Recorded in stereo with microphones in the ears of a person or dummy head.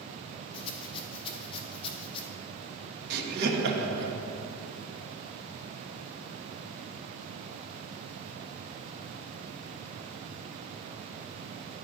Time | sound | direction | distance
0.5 | a rattle | 30° left (ahead or behind) | 0.9 m
3.1 | laughter | 55° right (ahead or behind) | 1.1 m